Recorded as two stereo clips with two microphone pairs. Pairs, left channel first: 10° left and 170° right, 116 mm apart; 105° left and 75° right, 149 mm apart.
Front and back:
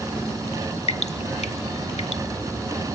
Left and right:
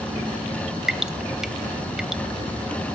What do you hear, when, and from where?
0.9 s dripping: 10° left, 0.7 m